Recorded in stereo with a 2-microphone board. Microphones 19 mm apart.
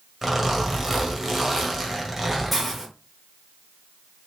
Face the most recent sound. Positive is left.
turn(degrees=-5)  # may be behind; listen again after turning